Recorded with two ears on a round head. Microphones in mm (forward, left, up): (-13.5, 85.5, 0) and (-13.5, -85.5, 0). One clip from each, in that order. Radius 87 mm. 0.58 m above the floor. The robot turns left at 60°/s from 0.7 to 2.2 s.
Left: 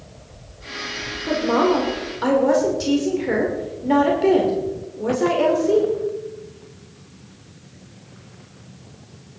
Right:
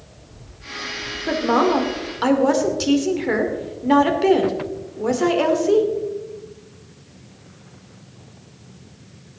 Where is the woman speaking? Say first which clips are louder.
Right 1 dB; 85° right, 2.5 m; by 5.9 s 140° right, 2.5 m.